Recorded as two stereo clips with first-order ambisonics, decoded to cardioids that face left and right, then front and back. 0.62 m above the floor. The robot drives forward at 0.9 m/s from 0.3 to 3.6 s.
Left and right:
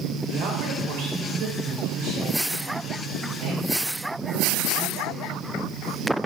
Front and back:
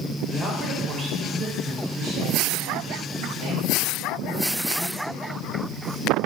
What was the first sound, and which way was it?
A woman speaking, 90° right.